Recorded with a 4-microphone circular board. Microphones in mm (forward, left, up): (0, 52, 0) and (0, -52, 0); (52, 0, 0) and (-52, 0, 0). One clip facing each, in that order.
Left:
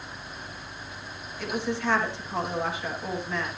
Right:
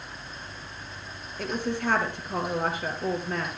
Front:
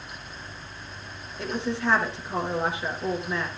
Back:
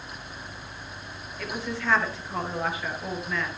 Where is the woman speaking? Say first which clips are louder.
Even, front 4 dB; 60° right, 3 m.